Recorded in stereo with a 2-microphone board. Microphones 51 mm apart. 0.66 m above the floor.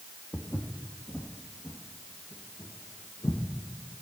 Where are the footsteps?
40° left (ahead or behind), 1.9 m; by 4.0 s 75° left (ahead or behind), 3 m.